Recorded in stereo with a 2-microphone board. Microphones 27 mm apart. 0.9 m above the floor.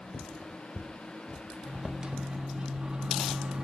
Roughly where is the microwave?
Right.